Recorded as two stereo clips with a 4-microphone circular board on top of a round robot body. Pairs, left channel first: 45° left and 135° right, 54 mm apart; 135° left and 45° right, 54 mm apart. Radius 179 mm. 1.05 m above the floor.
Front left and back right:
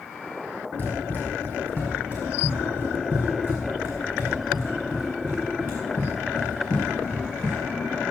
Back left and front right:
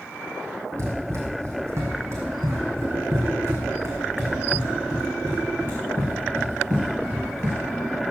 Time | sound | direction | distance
0.8 | running footsteps | 10° right | 2 m